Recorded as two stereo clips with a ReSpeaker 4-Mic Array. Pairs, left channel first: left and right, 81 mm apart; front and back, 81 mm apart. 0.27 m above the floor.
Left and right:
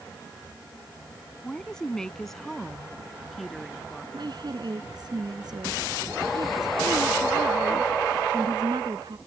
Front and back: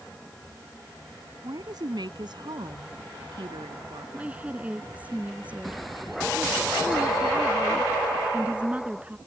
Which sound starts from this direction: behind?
A woman speaking, at 1.4 s.